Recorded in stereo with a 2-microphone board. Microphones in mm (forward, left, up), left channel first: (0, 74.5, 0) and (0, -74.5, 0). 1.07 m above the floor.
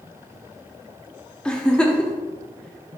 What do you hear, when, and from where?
1.4 s a giggle: 5° left (ahead or behind), 1.0 m